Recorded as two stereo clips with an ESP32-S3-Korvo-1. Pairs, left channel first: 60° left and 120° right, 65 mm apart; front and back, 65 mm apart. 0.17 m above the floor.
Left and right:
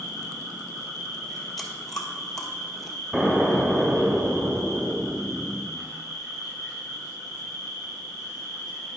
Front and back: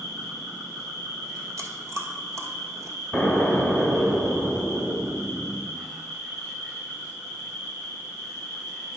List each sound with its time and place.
0.0 s an insect: 150° right, 4 m
1.6 s chewing: 145° left, 1.1 m
3.1 s an explosion: 170° right, 1.6 m